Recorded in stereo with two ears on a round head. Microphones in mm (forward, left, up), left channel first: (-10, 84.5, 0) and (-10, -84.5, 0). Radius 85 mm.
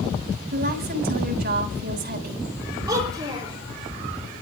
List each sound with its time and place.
0.5 s a woman speaking: 55° right (ahead or behind), 3.5 m
2.9 s a child speaking: 20° right (ahead or behind), 9.5 m